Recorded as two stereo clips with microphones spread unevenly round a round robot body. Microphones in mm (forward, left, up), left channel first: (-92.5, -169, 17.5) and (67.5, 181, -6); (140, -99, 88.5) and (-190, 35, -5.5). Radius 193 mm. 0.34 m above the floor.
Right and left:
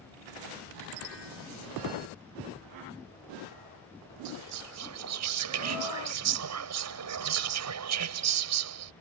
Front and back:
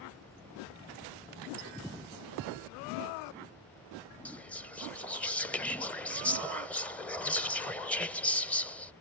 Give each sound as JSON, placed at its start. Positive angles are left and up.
{"t": 4.2, "sound": "whispering", "azimuth_deg": 80}